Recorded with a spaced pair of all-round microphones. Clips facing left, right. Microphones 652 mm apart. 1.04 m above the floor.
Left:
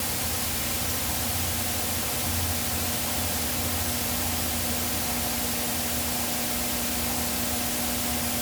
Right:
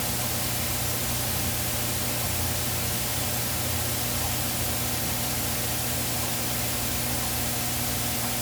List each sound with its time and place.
Only background noise.